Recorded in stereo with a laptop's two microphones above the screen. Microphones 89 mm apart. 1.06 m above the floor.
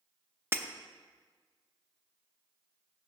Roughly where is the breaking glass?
Right.